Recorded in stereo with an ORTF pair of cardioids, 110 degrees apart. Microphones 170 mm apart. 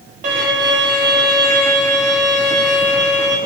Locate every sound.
0.2 s a violin: 55° right, 1.2 m